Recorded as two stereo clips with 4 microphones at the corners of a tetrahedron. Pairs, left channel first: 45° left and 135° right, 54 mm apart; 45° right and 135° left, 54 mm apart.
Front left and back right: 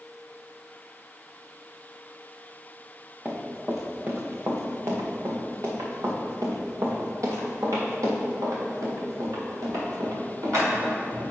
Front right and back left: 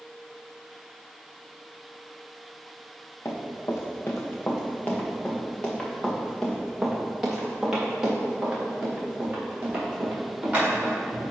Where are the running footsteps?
70° right, 1.7 m; by 11.3 s 165° right, 5 m.